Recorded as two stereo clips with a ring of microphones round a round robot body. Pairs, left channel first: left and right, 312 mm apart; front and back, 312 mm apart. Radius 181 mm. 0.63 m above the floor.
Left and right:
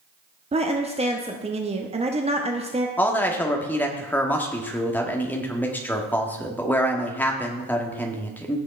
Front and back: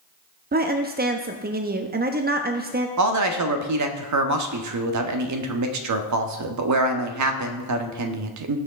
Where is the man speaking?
175° left, 1.3 m.